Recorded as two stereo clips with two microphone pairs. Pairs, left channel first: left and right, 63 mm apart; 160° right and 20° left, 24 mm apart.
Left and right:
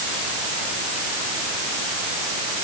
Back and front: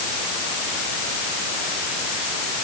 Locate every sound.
Only background noise.